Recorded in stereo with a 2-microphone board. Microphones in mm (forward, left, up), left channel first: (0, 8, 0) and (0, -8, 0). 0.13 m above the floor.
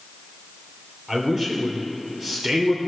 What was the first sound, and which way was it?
A man speaking, 25° right (ahead or behind).